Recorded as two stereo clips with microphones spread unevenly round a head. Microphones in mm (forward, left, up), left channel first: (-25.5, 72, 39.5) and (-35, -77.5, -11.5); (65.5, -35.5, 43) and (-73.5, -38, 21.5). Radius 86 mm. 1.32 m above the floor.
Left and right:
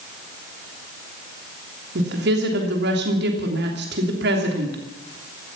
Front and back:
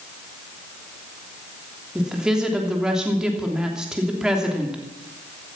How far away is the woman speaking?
About 3 m.